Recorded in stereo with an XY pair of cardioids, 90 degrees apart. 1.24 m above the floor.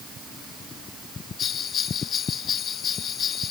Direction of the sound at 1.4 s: 65° left.